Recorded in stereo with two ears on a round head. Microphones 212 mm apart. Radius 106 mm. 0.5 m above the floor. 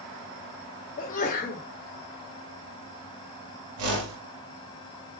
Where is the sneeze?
35° left (ahead or behind), 1.4 m.